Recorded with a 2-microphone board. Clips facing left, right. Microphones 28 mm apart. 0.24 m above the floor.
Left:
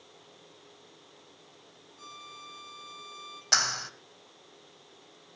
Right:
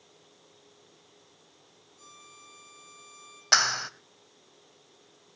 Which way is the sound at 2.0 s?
30° left (ahead or behind).